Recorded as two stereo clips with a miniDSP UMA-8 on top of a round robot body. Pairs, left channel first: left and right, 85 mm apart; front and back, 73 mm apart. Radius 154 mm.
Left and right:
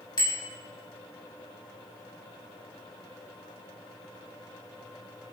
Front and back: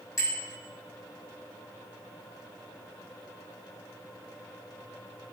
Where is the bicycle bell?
50° left, 4.5 m.